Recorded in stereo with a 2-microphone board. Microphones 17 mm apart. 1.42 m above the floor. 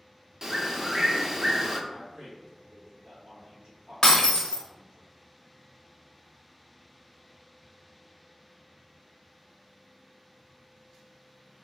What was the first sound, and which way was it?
A bird, 30° right (ahead or behind).